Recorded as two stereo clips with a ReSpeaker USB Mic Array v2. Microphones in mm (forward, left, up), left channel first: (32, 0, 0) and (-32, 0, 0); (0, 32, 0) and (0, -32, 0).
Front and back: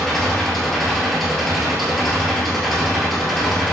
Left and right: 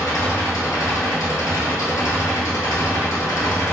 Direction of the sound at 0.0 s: 90° left.